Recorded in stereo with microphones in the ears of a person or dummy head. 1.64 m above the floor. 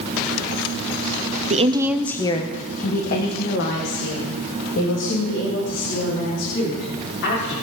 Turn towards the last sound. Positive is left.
turn(degrees=70)  # may be behind; listen again after turning